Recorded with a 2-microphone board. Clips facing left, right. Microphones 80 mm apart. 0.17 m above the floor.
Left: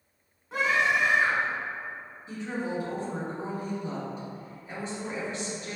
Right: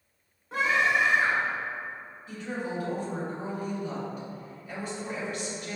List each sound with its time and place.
0.5 s a scream: centre (ahead or behind), 1.2 m
2.3 s a woman speaking: 30° left (ahead or behind), 1.8 m